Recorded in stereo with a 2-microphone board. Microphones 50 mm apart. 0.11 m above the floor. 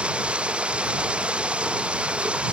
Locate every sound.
0.0 s running water: 20° right (ahead or behind)